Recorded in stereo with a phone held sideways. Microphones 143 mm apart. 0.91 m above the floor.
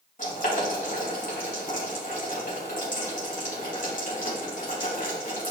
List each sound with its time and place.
0.2 s boiling: 65° left (ahead or behind), 3 m